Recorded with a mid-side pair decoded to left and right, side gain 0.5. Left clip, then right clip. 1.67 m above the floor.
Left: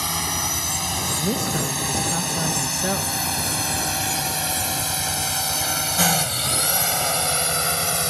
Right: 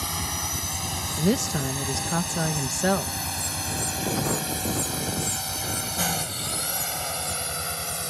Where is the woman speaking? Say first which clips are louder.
Left 2 dB; 25° right.